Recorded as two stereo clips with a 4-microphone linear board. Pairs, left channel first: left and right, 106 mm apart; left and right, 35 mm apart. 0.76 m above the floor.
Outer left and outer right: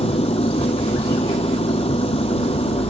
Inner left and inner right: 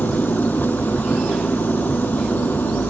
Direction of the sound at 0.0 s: 70° left (ahead or behind).